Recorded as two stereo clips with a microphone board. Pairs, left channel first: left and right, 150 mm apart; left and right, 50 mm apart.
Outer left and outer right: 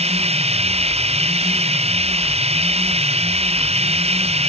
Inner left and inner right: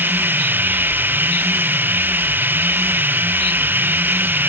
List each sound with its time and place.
0.0 s running water: 45° right (ahead or behind)